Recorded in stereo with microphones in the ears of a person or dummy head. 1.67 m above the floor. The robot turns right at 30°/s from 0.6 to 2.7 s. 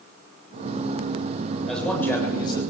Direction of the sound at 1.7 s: Centre (ahead or behind).